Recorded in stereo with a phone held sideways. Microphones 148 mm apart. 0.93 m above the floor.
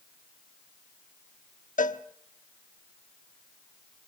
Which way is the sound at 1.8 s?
60° left (ahead or behind).